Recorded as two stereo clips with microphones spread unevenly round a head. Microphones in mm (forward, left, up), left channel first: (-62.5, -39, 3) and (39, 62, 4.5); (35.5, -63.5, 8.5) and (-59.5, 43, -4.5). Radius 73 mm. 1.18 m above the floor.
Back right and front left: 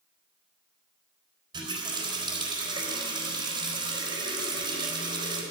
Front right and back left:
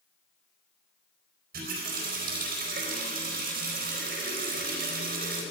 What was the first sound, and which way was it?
A running tap, 100° left.